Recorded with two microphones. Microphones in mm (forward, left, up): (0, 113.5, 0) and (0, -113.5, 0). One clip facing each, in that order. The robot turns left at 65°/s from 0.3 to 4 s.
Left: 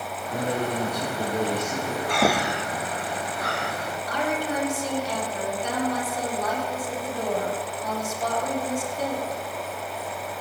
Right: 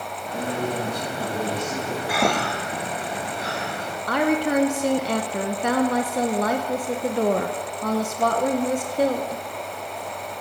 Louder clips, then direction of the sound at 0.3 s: Even; 95° left.